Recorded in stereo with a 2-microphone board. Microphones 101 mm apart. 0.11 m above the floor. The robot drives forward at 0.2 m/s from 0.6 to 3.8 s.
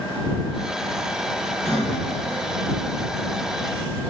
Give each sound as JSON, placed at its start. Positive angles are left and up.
{"t": 1.6, "sound": "breathing", "side_deg": 5, "distance_m": 1.0}